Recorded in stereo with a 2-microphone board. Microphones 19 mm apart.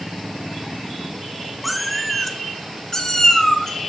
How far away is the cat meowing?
About 0.9 m.